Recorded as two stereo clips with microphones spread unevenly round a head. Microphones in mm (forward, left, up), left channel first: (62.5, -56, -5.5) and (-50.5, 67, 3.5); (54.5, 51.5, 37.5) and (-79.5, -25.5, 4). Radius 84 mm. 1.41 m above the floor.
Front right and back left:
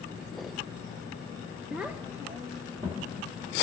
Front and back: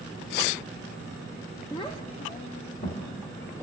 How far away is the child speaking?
About 0.5 m.